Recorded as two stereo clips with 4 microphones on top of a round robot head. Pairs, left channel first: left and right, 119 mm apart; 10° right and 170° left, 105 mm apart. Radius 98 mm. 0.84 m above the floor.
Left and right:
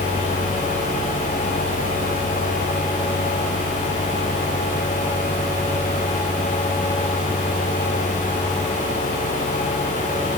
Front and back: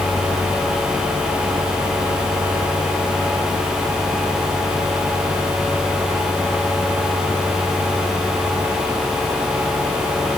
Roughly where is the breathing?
No breathing in this recording.